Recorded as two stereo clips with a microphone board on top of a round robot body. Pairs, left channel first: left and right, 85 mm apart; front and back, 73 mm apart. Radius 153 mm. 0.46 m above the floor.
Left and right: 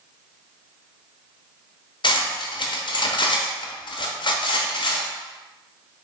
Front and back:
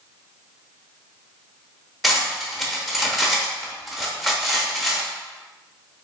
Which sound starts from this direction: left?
Cutlery clinking, at 2.0 s.